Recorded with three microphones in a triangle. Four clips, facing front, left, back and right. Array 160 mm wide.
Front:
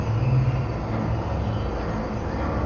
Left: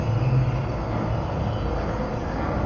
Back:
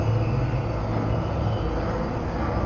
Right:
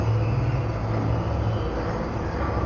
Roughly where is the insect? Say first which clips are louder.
Left 1 dB, even; left.